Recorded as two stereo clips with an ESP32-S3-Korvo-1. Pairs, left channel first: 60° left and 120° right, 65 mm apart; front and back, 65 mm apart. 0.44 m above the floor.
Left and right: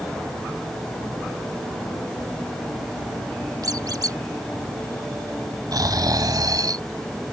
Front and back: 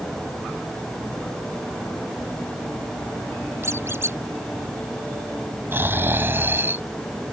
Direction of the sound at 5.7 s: 125° right.